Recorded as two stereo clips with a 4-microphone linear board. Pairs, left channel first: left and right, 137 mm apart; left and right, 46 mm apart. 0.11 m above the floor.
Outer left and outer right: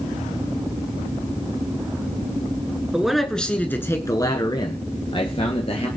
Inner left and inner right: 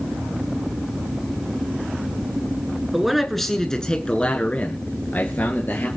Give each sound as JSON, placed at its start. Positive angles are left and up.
{"t": 2.9, "sound": "a man speaking", "side_deg": -5, "distance_m": 1.3}